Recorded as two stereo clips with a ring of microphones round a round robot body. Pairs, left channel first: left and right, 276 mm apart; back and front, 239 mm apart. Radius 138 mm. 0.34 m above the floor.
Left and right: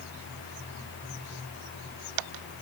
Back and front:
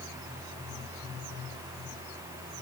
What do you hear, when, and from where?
Only background noise.